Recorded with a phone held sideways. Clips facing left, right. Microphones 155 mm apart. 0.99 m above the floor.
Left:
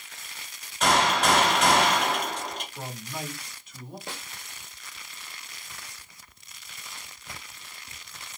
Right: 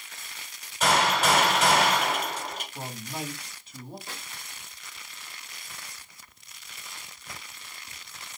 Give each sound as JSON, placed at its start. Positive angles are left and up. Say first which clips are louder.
{"t": 0.8, "sound": "a gunshot", "louder": "left 1 dB", "side_deg": -5, "distance_m": 2.5}
{"t": 2.8, "sound": "a man speaking", "louder": "right 1 dB", "side_deg": -30, "distance_m": 1.5}
{"t": 4.1, "sound": "a snare drum", "louder": "left 3 dB", "side_deg": 75, "distance_m": 1.2}